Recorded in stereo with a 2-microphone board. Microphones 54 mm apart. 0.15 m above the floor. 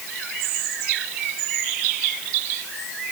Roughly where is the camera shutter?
I don't hear a camera shutter.